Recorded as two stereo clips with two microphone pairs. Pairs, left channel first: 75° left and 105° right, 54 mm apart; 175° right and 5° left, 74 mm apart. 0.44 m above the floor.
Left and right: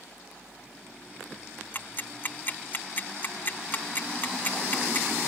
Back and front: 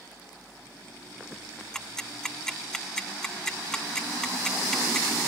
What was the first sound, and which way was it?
Ticking, 105° left.